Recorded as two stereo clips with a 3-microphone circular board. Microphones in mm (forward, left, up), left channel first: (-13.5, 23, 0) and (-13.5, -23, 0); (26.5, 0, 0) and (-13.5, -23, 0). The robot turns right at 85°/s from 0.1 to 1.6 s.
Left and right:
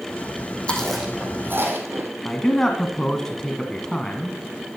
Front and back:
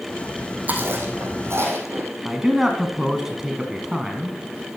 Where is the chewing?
160° left, 2.5 m; by 2.1 s 120° right, 2.5 m.